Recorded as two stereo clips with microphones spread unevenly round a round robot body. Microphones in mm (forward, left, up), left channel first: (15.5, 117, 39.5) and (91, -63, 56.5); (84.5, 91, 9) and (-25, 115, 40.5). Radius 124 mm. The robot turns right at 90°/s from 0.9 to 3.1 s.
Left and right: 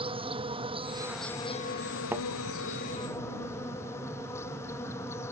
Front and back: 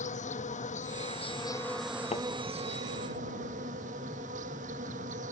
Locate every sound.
0.0 s an insect: 5° right; by 5.3 s 165° right
2.1 s a thud: 10° left; by 2.2 s 25° left